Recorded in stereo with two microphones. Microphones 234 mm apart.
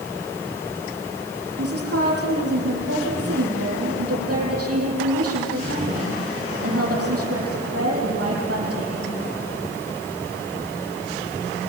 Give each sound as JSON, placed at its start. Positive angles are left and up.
{"t": 1.6, "sound": "a woman speaking", "side_deg": -80, "distance_m": 8.0}